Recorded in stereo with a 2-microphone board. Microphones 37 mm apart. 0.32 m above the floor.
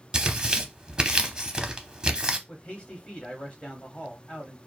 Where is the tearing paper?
20° right (ahead or behind), 0.6 m.